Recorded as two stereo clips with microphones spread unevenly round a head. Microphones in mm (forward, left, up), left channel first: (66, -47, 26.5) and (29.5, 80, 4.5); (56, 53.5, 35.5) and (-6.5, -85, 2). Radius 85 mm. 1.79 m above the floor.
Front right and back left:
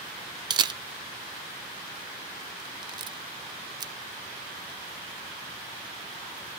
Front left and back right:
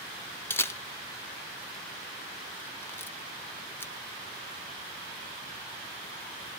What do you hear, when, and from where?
0.5 s a camera shutter: 75° left, 0.5 m